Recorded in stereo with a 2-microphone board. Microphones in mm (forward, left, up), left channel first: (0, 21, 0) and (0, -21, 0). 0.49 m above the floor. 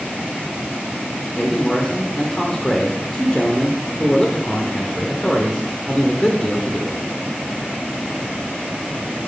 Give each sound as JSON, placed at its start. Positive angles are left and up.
{"t": 1.4, "sound": "a man speaking", "side_deg": 20, "distance_m": 1.1}